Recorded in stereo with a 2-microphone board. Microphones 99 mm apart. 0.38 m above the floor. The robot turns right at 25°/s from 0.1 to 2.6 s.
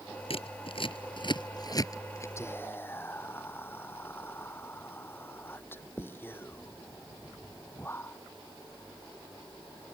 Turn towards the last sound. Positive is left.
turn(degrees=20)  # may be behind; listen again after turning